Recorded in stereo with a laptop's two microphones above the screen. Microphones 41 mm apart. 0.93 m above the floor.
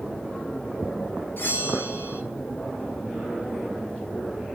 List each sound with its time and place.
1.4 s a bell: 55° left (ahead or behind), 3 m